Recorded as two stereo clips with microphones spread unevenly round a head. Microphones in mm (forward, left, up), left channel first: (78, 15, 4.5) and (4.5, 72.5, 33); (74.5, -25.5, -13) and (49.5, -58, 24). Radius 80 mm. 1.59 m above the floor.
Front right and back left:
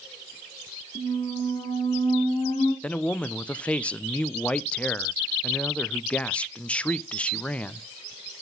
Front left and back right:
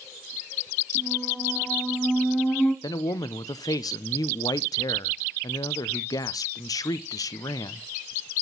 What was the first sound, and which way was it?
A squeak, 20° right.